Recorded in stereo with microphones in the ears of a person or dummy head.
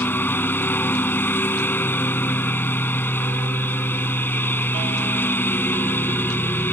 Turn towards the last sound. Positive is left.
turn(degrees=10)  # may be behind; listen again after turning